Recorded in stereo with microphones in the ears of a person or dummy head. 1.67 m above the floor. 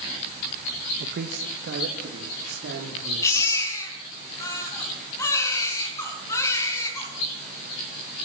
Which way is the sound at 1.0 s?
55° right (ahead or behind).